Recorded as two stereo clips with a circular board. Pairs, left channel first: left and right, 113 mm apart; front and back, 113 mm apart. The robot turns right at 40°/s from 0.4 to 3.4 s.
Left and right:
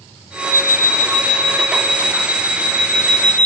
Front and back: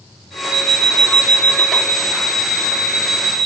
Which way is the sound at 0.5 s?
155° right.